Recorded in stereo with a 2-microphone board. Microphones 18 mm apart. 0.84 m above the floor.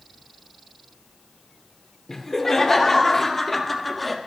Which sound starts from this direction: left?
Laughter, at 2.1 s.